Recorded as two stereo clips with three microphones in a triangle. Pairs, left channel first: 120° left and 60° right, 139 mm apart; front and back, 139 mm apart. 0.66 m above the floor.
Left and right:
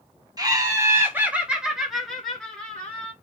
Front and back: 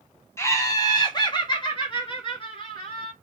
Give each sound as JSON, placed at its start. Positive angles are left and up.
{"t": 0.4, "sound": "laughter", "azimuth_deg": -50, "distance_m": 1.1}